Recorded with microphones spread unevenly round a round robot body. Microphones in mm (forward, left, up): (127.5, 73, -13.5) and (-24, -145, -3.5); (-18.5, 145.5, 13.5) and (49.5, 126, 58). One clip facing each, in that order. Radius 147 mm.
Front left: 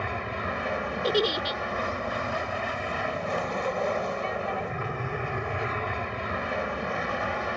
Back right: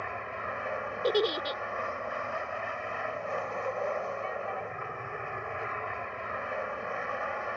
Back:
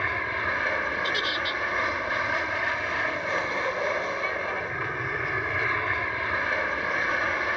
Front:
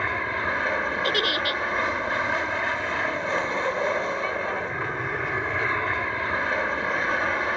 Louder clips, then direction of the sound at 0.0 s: Front left 6 dB, front 2 dB; 60° left.